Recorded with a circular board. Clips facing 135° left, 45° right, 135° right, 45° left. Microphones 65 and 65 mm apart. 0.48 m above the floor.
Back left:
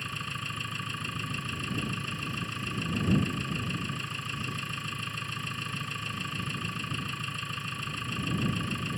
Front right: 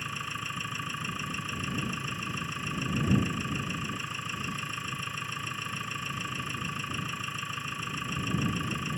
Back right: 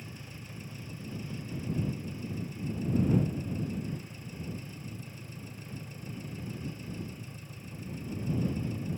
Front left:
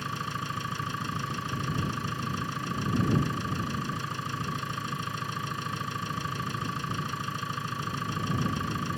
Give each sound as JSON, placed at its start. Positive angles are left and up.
{"t": 0.0, "sound": "an engine running", "azimuth_deg": 40}